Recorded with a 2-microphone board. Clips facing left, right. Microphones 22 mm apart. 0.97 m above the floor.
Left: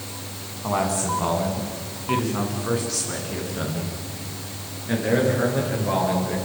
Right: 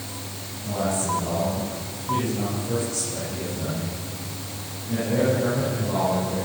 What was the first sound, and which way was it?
A man speaking, 85° left.